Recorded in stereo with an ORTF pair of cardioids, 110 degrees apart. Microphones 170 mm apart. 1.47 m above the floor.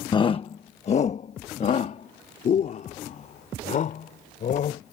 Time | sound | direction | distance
0.1 | a shout | 25° left | ?